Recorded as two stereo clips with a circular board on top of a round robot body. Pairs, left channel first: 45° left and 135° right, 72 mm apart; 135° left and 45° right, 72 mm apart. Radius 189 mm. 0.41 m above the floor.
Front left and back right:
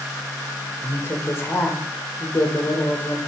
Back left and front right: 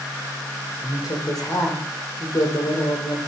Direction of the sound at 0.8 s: 100° left.